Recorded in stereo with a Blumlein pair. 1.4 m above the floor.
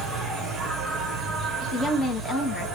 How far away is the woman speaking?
About 1.3 m.